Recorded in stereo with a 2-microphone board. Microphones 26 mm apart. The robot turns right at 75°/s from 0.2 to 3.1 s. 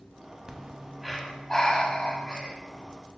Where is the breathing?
45° right, 0.5 m; by 2.5 s 110° left, 0.5 m.